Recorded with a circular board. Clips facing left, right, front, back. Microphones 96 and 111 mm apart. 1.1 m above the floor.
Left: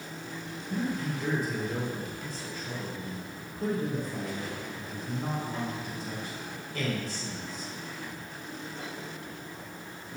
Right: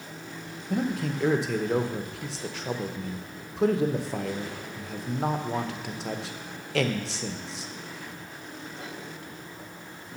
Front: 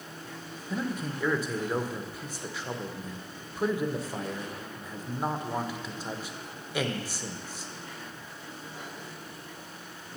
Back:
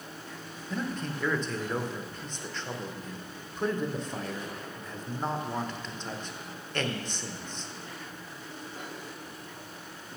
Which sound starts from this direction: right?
A man speaking, at 0.7 s.